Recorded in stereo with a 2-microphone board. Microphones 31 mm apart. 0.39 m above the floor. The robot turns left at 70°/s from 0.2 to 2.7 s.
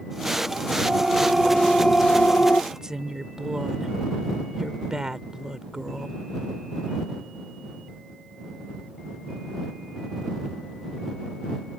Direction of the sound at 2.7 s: 25° right (ahead or behind).